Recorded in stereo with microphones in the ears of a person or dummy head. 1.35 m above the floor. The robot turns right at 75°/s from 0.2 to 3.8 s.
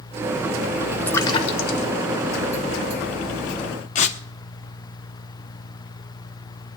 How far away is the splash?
About 1.6 m.